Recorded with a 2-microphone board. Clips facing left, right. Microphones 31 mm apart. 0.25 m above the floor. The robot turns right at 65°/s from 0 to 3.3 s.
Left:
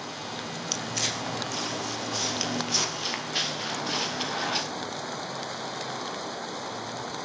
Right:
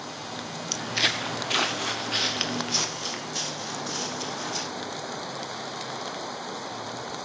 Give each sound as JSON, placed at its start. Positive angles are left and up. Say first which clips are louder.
{"t": 0.7, "sound": "footsteps", "louder": "right 6 dB", "side_deg": 0, "distance_m": 0.8}